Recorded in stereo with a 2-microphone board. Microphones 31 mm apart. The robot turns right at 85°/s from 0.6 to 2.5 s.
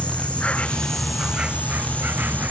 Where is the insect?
140° left; by 2.5 s 55° right.